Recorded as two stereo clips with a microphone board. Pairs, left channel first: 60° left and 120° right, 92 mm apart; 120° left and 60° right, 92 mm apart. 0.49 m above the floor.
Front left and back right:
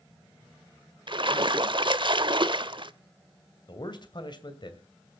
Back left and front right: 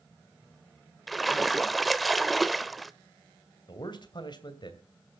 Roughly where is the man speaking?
Left.